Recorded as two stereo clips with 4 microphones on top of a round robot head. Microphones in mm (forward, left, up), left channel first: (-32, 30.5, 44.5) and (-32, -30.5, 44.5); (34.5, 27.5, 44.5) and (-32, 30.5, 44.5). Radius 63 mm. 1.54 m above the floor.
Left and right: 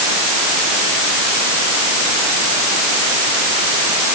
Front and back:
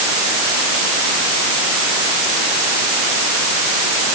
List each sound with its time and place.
Only background noise.